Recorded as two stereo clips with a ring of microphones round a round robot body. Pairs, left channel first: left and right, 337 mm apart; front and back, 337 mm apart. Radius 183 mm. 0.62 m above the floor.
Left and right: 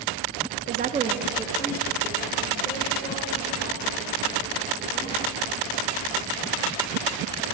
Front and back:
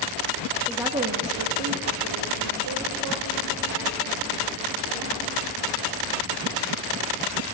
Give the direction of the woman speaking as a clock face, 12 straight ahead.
3 o'clock.